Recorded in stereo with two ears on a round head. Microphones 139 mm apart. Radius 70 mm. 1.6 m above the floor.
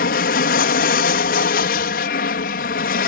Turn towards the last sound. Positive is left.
turn(degrees=60)  # may be behind; listen again after turning